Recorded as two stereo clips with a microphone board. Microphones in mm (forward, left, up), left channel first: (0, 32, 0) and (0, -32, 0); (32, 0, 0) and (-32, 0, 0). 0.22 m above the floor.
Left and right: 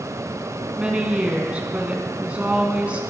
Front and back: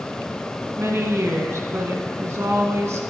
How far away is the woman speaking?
About 1.6 m.